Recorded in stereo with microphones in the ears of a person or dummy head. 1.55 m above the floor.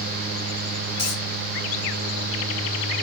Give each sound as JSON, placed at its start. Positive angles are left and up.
{"t": 1.0, "sound": "a dropped coin", "side_deg": 25, "distance_m": 3.0}